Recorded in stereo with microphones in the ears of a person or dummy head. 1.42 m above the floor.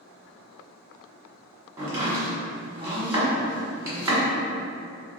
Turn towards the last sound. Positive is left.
turn(degrees=-20)  # may be behind; listen again after turning